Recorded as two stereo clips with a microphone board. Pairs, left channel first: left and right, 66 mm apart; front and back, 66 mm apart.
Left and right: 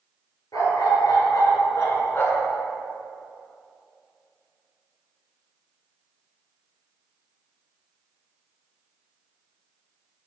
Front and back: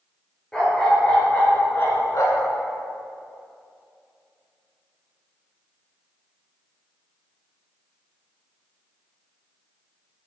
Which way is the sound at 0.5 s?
80° left.